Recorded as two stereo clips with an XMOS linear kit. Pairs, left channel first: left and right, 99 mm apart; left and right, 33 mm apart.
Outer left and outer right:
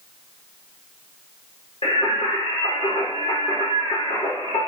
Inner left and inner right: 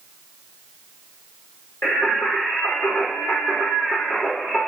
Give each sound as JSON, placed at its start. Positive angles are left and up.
{"t": 1.8, "sound": "singing", "side_deg": 70, "distance_m": 5.0}